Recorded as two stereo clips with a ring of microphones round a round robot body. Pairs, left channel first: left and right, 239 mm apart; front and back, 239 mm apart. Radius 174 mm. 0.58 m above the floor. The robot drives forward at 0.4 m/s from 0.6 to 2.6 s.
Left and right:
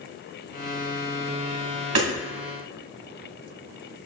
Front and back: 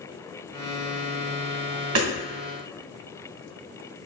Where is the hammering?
135° right, 2.0 m.